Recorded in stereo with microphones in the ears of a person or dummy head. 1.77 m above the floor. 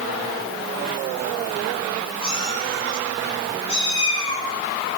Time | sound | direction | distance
2.2 | a cat meowing | 25° left (ahead or behind) | 6.5 m